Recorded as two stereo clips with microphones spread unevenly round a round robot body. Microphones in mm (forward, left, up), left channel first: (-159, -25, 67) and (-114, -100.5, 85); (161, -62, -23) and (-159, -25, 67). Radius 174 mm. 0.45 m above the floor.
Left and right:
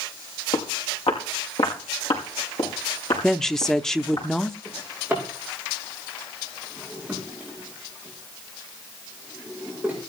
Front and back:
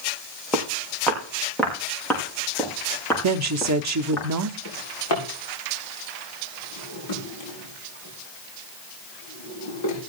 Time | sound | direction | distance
0.5 | footsteps | 85° left | 4.5 m
3.2 | a woman speaking | straight behind | 0.8 m
4.7 | a drawer | 30° left | 8 m